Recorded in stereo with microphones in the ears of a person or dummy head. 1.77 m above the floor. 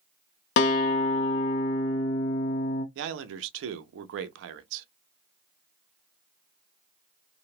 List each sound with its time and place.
0.6 s a guitar: 65° left (ahead or behind), 0.6 m
3.0 s a man speaking: 70° right (ahead or behind), 0.6 m